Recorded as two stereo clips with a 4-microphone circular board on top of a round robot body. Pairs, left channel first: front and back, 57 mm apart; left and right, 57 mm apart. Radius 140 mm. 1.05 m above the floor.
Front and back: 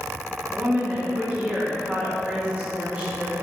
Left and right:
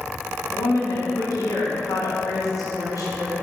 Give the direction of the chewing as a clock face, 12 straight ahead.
I don't hear chewing.